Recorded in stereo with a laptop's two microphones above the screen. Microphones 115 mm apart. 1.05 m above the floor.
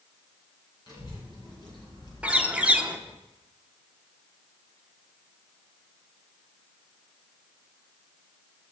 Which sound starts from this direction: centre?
A bird, at 2.2 s.